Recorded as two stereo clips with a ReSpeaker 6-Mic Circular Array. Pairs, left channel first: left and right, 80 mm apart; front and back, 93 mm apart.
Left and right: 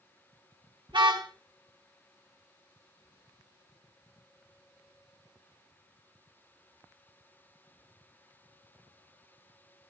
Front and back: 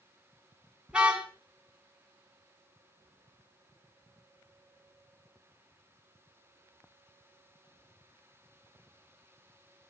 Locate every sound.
0.9 s a car horn: 100° right, 5.5 m